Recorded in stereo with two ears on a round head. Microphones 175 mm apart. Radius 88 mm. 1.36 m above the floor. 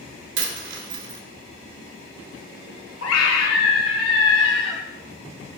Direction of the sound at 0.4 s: 65° right (ahead or behind).